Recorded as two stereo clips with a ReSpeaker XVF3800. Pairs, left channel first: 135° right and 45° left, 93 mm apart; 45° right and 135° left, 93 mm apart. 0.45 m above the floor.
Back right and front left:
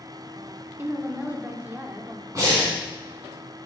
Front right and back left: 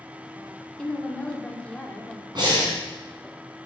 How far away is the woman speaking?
About 0.8 m.